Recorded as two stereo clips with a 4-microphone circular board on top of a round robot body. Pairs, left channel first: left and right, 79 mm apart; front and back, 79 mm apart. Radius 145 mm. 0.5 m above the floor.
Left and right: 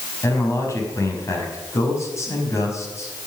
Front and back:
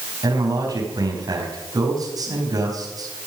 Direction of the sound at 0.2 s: 145° left.